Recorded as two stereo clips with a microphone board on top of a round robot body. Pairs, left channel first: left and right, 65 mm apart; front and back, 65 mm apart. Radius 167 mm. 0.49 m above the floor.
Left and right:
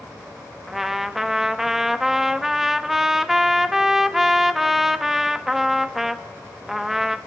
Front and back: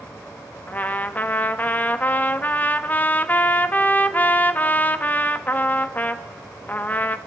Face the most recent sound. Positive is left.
turn(degrees=-10)